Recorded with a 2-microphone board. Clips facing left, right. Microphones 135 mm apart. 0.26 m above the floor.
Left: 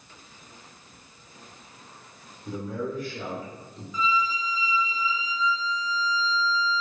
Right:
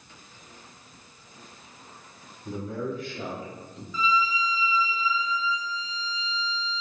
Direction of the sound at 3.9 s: 20° left (ahead or behind).